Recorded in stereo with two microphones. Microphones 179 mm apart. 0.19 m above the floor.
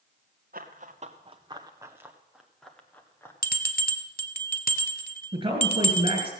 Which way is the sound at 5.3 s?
25° right (ahead or behind).